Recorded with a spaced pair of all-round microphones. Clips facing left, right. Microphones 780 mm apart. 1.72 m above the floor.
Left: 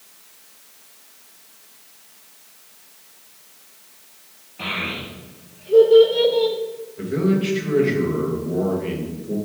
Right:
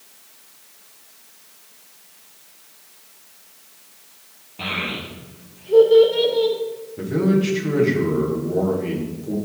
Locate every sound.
4.6 s a child speaking: 60° right (ahead or behind), 1.9 m; by 6.6 s 25° left (ahead or behind), 0.9 m
7.0 s a man speaking: 70° right (ahead or behind), 1.9 m